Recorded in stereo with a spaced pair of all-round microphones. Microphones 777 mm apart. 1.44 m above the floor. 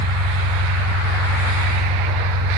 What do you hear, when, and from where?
0.0 s an engine running: 85° right, 5 m